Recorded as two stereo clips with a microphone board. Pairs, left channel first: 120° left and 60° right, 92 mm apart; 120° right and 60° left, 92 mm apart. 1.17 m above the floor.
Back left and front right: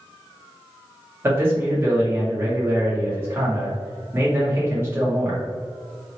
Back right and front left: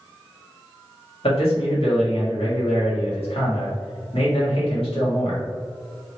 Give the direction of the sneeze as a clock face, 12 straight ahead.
No sneeze in this recording.